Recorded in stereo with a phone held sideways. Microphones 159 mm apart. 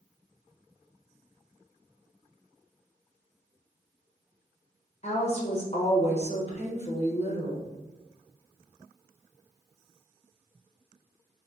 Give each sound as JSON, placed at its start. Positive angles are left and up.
{"t": 5.0, "sound": "a woman speaking", "side_deg": 45, "distance_m": 0.9}